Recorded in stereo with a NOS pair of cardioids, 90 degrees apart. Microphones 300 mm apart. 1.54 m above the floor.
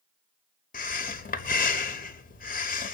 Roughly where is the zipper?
I don't hear a zipper.